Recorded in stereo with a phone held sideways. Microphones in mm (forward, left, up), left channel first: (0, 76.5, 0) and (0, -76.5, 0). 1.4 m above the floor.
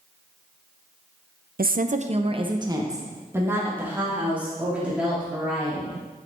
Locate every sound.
1.6 s a woman speaking: 75° right (ahead or behind), 0.6 m; by 6.0 s 5° right (ahead or behind), 4 m